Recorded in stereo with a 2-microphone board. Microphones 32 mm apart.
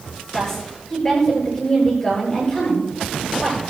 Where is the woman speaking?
25° left (ahead or behind), 9.5 m.